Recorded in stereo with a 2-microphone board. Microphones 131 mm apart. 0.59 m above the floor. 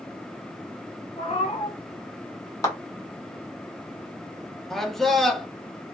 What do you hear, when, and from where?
1.2 s a cat meowing: 55° left (ahead or behind), 1.1 m
2.6 s a clap: 25° left (ahead or behind), 1.1 m
4.7 s a man speaking: centre (ahead or behind), 0.6 m